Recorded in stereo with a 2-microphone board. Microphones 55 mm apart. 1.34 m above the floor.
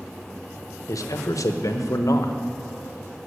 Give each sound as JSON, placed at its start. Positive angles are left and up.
{"t": 0.9, "sound": "a man speaking", "side_deg": 80, "distance_m": 0.9}